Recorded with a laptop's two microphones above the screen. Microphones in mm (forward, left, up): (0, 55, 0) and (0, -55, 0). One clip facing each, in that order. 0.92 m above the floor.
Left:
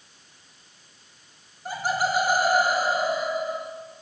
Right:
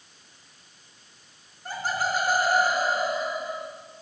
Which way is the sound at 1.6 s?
10° left (ahead or behind).